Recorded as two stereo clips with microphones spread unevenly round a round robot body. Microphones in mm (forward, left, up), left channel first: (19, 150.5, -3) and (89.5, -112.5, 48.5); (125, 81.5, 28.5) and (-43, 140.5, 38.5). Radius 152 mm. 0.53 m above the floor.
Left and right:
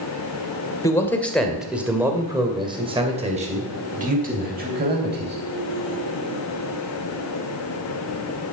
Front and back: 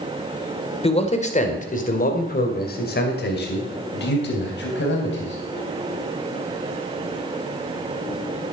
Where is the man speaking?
35° left, 2 m; by 5.3 s 20° right, 3.5 m.